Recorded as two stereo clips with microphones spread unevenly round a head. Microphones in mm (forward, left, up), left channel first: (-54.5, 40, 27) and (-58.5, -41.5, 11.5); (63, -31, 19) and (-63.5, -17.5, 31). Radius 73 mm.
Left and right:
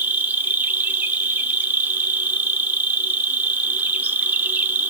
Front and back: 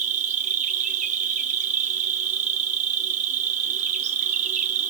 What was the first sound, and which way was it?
An insect, 160° right.